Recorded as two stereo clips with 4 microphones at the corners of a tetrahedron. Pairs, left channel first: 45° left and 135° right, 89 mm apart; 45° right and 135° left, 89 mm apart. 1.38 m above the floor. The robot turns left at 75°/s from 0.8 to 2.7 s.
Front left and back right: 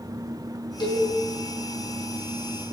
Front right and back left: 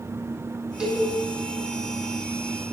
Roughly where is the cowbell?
Ahead left.